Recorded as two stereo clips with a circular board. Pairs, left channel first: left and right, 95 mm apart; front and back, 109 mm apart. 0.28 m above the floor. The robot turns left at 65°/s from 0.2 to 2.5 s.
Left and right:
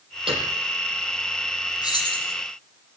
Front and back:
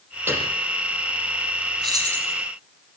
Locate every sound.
0.3 s a piano: 110° right, 7.5 m; by 0.5 s 125° right, 7.5 m
1.8 s keys jangling: 135° left, 7 m; by 2.3 s 105° left, 7 m